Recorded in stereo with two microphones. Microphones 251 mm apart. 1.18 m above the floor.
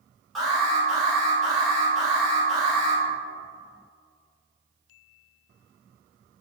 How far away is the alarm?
About 1.7 m.